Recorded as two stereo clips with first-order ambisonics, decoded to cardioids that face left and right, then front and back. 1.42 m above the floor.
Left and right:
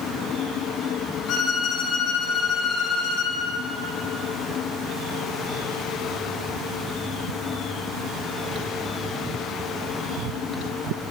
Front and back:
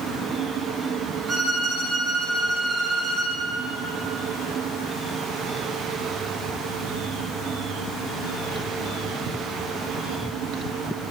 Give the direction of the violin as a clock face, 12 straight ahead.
8 o'clock.